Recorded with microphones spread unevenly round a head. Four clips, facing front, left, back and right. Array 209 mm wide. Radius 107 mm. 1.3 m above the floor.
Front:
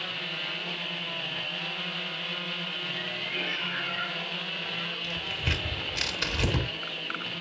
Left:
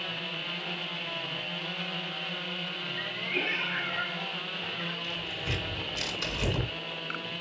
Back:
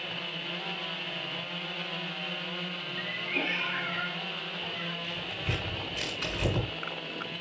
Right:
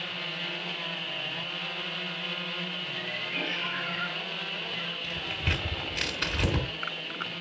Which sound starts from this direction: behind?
A cat meowing, at 3.0 s.